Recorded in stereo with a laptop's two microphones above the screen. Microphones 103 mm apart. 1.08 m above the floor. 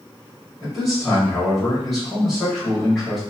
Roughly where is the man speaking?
Centre.